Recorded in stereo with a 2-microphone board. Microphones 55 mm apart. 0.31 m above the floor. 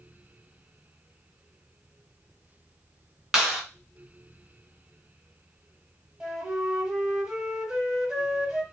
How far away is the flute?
About 0.9 m.